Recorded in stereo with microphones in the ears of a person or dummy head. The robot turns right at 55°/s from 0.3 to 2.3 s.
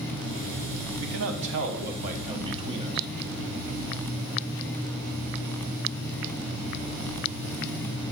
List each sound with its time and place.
1.0 s a man speaking: 100° right, 1.1 m; by 3.1 s 30° right, 1.1 m